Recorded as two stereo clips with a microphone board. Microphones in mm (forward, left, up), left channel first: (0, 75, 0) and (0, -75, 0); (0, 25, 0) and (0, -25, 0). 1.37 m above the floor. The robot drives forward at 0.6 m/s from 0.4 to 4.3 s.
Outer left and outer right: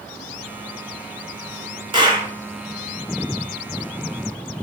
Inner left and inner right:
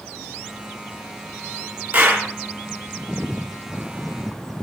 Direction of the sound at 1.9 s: 35° right (ahead or behind).